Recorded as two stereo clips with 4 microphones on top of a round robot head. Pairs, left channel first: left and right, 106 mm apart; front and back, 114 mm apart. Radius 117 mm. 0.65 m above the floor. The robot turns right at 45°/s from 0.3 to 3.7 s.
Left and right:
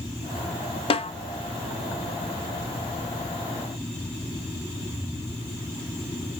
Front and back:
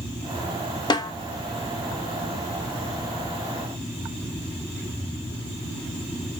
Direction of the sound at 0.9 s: 55° left.